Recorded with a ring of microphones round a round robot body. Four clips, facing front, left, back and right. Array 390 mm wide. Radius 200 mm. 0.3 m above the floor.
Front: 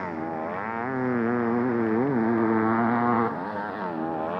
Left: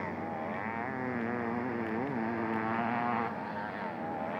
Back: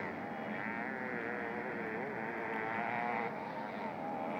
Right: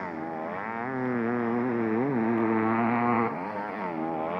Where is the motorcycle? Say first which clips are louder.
Right 3 dB, front 11 dB; 20° right; by 4.4 s 40° right.